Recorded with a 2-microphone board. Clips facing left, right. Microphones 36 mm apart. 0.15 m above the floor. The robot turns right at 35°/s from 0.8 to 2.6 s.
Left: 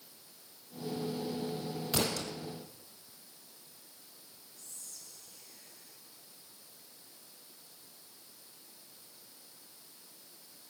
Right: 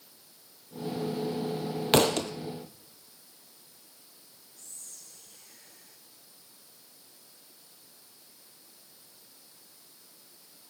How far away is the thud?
About 0.9 m.